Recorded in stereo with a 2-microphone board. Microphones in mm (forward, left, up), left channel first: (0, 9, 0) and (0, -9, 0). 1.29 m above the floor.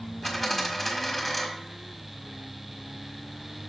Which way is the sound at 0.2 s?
25° left (ahead or behind).